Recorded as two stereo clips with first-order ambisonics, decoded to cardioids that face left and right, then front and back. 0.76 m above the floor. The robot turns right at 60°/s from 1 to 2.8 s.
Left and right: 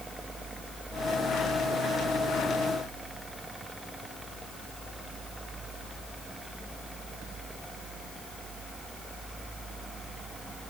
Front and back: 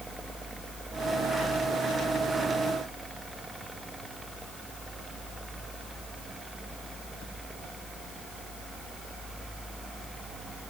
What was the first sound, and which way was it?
Only background noise.